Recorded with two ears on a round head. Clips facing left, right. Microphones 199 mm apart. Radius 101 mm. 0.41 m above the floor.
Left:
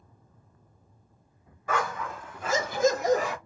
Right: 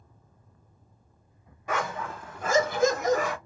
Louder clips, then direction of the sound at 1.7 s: Left 1 dB; 15° right (ahead or behind).